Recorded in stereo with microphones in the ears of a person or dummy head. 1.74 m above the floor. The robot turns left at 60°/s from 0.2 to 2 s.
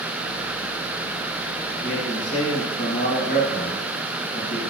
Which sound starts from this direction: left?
A man speaking, at 1.8 s.